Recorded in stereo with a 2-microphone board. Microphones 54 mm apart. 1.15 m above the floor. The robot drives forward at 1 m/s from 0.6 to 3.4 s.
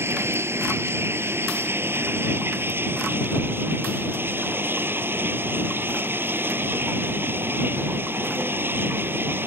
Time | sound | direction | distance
0.0 | running water | 50° right (ahead or behind) | ?